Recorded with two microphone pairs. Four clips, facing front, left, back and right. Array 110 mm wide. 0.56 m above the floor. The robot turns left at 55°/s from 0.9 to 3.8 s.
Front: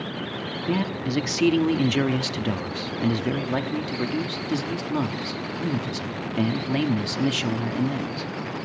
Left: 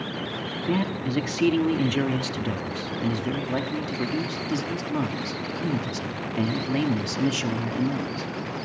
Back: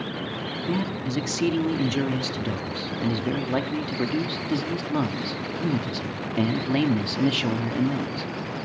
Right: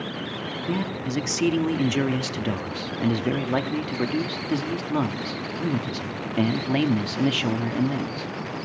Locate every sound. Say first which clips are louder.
0.7 s a man speaking: left 2 dB, front 2 dB; 50° left, 1.2 m; by 8.3 s 110° right, 1.2 m